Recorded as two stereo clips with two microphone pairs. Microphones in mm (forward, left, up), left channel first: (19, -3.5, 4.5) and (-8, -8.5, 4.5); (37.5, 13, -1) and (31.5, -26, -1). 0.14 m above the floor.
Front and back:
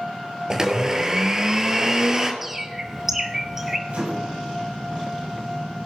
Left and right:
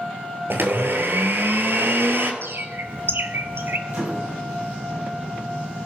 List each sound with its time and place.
0.5 s a blender: 100° right, 1.5 m
2.4 s a bird: 90° right, 1.2 m
3.9 s a microwave: 140° right, 5 m